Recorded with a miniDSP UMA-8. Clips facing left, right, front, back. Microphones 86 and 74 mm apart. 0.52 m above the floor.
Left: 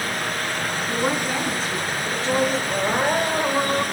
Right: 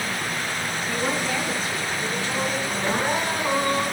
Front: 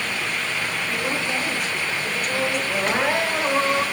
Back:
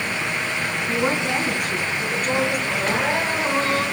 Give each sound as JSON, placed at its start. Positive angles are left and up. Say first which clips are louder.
{"t": 0.9, "sound": "a woman speaking", "louder": "left 2 dB, back 6 dB", "azimuth_deg": 150, "distance_m": 4.5}
{"t": 2.7, "sound": "crying", "louder": "left 3 dB, even", "azimuth_deg": 70, "distance_m": 3.0}